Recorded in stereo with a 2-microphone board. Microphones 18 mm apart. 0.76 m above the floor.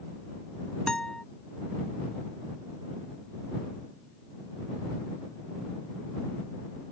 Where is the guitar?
50° left (ahead or behind).